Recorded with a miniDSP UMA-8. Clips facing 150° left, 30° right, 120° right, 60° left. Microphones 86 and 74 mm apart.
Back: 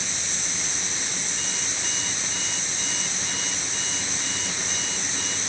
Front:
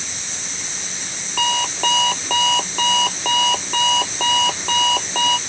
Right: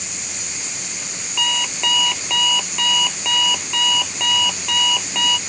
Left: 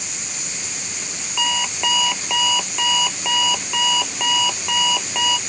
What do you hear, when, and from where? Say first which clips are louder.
1.4 s an alarm clock: front 14 dB, left 1 dB; 20° right